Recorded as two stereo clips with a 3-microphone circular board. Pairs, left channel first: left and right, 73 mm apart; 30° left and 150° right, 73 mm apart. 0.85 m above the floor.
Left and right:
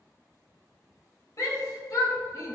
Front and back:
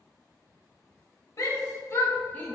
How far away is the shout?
About 1.3 m.